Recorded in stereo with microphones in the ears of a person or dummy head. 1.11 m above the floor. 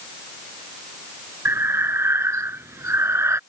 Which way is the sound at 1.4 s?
15° right (ahead or behind).